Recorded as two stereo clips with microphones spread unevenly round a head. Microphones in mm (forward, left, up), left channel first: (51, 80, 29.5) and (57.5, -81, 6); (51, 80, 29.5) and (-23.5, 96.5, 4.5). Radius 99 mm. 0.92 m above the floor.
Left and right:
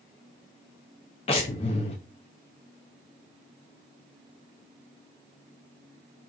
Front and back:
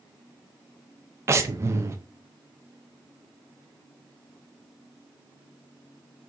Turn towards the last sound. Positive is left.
turn(degrees=150)